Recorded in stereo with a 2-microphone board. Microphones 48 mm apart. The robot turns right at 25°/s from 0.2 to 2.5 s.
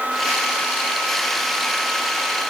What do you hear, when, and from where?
Only background noise.